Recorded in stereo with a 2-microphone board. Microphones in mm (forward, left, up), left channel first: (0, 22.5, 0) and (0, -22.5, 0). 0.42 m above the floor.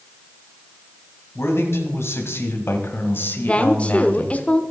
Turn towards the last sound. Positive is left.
turn(degrees=25)  # may be behind; listen again after turning